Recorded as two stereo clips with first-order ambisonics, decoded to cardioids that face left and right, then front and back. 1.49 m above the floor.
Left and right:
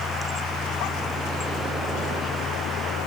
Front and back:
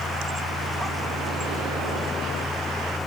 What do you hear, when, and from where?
Only background noise.